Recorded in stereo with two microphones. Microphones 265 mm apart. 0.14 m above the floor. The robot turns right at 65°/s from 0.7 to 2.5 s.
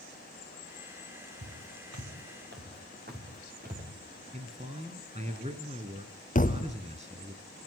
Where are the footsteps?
60° right (ahead or behind), 4.5 m; by 3.9 s 35° right (ahead or behind), 5 m.